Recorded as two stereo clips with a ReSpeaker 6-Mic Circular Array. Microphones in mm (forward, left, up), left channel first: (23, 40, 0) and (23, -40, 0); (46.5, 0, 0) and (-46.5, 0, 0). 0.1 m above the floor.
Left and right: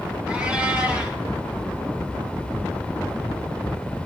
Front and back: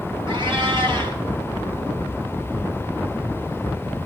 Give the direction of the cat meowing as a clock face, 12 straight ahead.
5 o'clock.